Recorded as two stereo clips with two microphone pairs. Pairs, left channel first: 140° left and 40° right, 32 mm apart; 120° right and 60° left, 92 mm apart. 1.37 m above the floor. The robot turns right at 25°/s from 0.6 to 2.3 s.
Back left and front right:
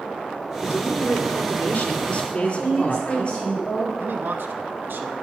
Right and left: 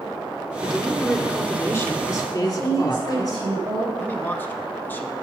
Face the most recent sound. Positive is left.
turn(degrees=-50)